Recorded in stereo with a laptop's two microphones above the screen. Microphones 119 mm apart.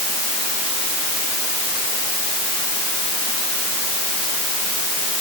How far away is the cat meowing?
I don't hear a cat meowing.